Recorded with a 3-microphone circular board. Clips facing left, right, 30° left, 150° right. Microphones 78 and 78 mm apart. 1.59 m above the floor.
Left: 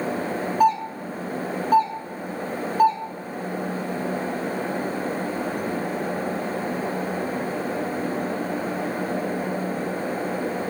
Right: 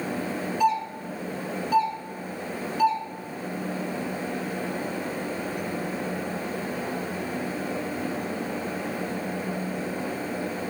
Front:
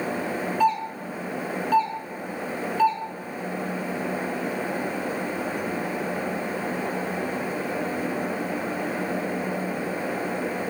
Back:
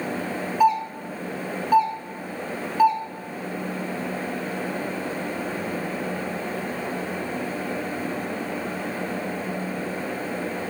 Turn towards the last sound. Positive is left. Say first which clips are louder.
# left 4 dB, back 4 dB
turn(degrees=135)